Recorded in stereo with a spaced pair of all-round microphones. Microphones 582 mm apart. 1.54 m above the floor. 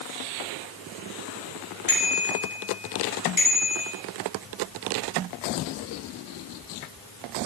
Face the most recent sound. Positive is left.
turn(degrees=50)  # may be behind; listen again after turning